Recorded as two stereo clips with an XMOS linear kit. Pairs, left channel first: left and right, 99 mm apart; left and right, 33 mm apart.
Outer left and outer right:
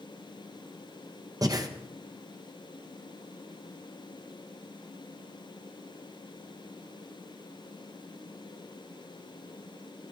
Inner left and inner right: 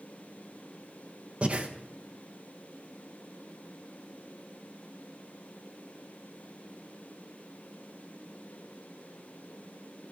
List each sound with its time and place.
1.4 s breathing: 40° right (ahead or behind), 1.0 m